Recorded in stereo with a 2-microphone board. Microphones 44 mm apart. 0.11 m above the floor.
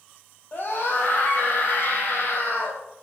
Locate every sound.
0.5 s a scream: 50° left (ahead or behind), 4.5 m